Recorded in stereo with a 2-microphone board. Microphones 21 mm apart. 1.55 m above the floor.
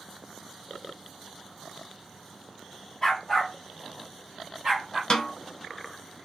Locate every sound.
3.0 s a dog barking: 15° left (ahead or behind), 1.4 m; by 5.0 s 35° right (ahead or behind), 1.7 m
5.1 s a snare drum: 35° left (ahead or behind), 0.7 m